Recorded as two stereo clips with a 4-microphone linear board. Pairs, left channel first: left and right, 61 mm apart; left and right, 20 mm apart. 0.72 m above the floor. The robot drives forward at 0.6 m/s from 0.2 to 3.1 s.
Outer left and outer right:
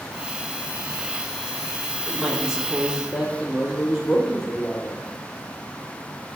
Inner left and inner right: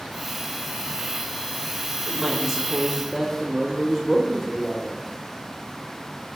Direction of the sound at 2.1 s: 15° right (ahead or behind).